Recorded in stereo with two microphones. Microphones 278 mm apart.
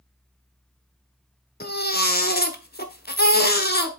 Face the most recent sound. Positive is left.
turn(degrees=35)  # may be behind; listen again after turning